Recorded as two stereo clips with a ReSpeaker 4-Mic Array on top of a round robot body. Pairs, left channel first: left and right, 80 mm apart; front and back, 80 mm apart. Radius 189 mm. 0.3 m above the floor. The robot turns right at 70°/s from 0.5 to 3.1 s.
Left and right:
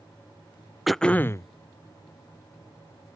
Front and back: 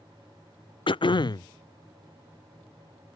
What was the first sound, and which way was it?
Throat clearing, straight ahead.